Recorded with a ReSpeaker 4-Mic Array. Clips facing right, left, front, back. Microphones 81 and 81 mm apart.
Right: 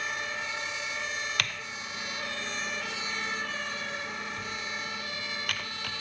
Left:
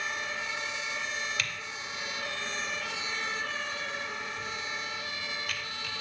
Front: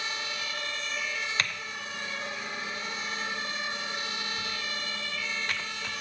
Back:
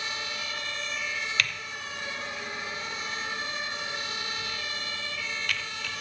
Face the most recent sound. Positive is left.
turn(degrees=-60)